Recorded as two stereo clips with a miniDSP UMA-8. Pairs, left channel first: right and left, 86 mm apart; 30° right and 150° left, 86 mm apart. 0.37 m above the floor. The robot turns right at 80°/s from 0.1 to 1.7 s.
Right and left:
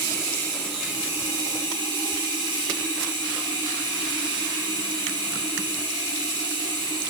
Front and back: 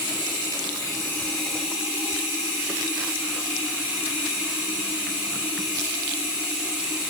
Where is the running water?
50° right, 3 m; by 7.1 s 80° left, 3 m.